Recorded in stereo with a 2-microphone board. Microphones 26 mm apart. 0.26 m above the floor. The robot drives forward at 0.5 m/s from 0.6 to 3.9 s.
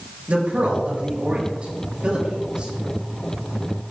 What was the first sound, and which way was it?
A man speaking, 45° right (ahead or behind).